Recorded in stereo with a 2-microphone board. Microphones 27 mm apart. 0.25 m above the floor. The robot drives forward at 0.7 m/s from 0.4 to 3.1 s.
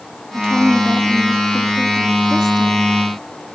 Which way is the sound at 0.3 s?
25° left (ahead or behind).